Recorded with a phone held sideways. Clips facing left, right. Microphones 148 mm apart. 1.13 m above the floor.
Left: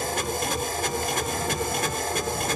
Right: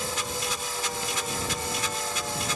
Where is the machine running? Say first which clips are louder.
Left 5 dB; 55° left (ahead or behind).